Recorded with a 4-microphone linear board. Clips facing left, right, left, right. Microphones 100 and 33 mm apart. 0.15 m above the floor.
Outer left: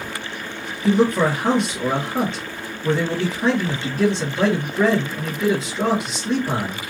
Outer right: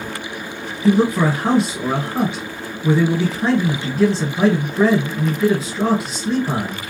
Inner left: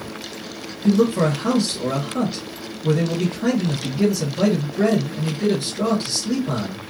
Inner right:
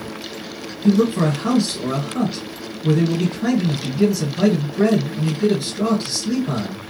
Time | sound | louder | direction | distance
0.8 | a man speaking | outer right 2 dB, inner right 1 dB | 5° right (ahead or behind) | 2.5 m